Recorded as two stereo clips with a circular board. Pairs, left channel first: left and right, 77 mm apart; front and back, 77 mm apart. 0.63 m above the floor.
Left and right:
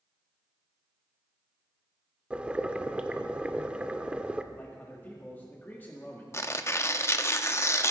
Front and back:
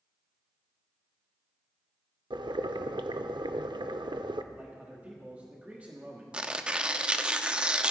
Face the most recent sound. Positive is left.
turn(degrees=110)